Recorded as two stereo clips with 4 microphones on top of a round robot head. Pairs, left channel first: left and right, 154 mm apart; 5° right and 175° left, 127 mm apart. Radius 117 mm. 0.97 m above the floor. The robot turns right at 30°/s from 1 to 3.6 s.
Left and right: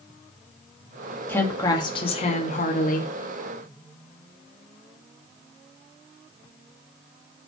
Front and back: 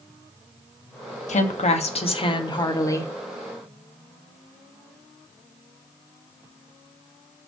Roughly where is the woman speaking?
Ahead.